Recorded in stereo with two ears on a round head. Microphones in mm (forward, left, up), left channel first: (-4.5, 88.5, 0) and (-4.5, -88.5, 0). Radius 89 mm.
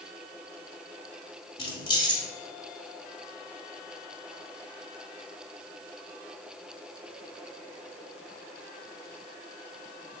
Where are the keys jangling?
25° left (ahead or behind), 2 m.